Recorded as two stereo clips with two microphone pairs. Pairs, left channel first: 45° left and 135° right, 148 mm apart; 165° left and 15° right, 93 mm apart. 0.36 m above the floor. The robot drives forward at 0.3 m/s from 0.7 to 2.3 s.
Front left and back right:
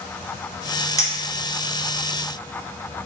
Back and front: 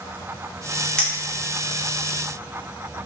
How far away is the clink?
About 0.6 m.